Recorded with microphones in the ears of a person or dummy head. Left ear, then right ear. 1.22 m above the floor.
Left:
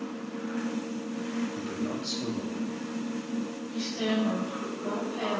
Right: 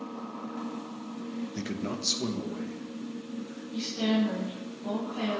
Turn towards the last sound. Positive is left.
turn(degrees=-20)  # may be behind; listen again after turning